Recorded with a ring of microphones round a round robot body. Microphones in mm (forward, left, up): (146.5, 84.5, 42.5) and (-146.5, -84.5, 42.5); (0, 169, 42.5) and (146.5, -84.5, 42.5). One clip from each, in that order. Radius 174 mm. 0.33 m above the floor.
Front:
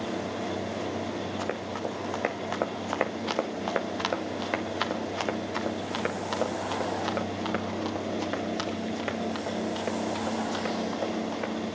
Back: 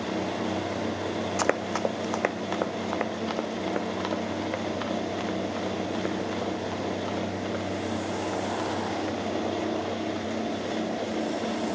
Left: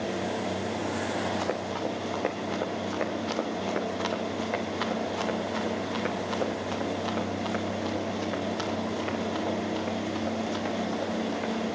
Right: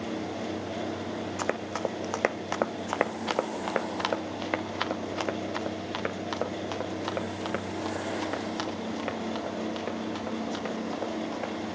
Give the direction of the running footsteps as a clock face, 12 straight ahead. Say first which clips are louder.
Back 6 dB, even; 4 o'clock.